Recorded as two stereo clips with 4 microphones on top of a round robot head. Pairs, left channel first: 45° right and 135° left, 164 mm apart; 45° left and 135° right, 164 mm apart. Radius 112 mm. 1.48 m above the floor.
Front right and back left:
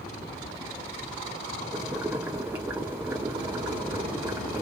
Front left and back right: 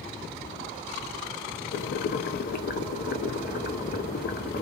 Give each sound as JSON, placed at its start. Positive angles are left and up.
{"t": 1.7, "sound": "boiling", "azimuth_deg": 60, "distance_m": 0.5}